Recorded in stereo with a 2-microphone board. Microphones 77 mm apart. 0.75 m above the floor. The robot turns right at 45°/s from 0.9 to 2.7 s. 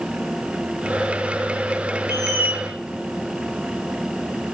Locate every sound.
2.1 s a squeak: 30° right (ahead or behind), 0.8 m; by 2.6 s 10° right (ahead or behind), 0.8 m